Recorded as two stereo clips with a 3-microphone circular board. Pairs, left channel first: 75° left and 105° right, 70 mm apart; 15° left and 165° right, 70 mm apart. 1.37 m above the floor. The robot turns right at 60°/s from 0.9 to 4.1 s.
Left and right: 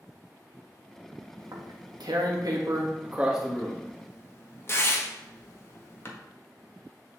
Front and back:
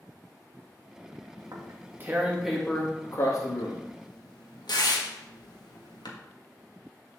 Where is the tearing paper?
145° right, 1.5 m; by 6.1 s 20° left, 1.5 m.